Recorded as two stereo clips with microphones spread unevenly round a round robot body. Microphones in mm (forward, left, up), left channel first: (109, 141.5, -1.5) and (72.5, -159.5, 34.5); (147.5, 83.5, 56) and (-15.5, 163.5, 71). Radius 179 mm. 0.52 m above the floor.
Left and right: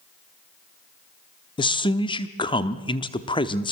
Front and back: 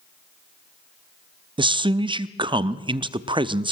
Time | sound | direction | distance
1.6 | a man speaking | 115° left | 0.8 m